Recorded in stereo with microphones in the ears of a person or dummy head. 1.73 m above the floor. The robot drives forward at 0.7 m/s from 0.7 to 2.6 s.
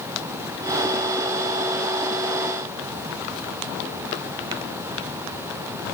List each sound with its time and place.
Only background noise.